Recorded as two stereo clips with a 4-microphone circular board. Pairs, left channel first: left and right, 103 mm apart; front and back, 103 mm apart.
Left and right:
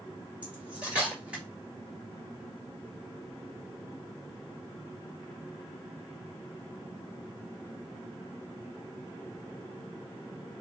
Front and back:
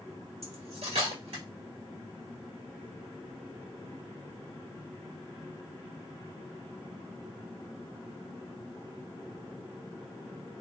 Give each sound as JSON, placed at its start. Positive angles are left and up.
{"t": 0.4, "sound": "cutlery clinking", "azimuth_deg": -165, "distance_m": 1.6}